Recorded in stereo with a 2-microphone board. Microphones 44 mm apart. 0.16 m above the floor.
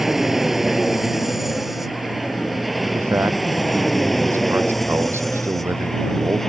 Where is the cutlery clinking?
No cutlery clinking in this recording.